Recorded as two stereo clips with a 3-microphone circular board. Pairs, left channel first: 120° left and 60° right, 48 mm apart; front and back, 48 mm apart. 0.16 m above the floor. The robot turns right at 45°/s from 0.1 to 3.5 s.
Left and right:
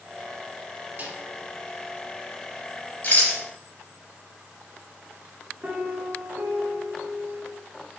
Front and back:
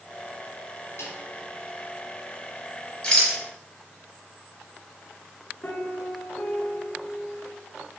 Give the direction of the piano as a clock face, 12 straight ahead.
1 o'clock.